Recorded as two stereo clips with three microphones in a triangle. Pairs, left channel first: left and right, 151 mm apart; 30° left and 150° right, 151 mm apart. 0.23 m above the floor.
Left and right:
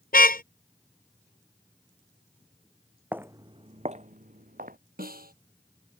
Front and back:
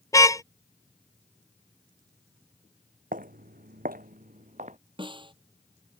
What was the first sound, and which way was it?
A car horn, 100° left.